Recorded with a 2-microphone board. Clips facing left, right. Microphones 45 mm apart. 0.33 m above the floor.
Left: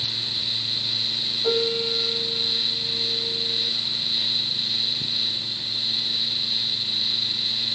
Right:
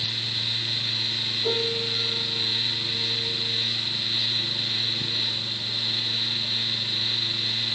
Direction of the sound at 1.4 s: 15° left (ahead or behind).